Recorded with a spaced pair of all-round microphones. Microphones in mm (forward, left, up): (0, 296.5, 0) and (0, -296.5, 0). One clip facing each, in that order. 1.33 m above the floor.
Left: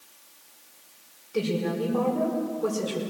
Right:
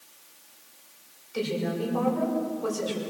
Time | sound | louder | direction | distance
1.3 | a woman speaking | left 2 dB | 70° left (ahead or behind) | 5.5 m